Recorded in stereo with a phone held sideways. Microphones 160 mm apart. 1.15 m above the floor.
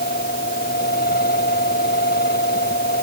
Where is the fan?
90° left.